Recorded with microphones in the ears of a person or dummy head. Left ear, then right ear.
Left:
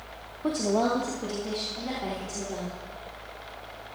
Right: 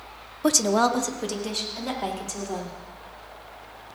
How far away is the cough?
I don't hear a cough.